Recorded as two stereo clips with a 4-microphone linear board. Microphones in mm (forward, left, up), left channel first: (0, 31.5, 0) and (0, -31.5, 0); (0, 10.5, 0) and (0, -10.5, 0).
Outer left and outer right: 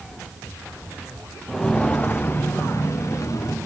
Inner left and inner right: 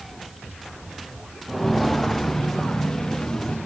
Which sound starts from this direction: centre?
Footsteps, at 1.5 s.